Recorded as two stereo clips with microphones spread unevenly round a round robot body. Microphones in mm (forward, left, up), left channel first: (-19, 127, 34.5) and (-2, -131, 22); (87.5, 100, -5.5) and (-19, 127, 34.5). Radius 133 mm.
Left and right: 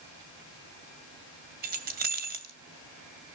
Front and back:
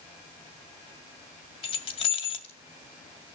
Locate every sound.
1.6 s keys jangling: 35° right, 2 m